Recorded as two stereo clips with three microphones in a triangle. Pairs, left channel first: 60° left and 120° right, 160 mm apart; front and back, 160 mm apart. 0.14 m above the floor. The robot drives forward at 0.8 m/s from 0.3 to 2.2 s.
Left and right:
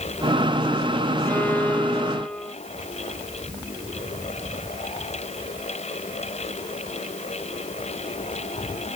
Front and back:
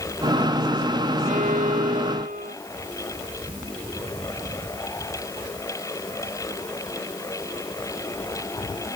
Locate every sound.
1.2 s a violin: 140° left